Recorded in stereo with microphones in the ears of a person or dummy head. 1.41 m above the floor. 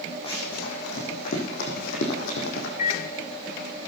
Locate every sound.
0.2 s running footsteps: 35° left (ahead or behind), 4.5 m; by 2.7 s 65° left (ahead or behind), 4 m
2.8 s a microwave: 40° left (ahead or behind), 1.5 m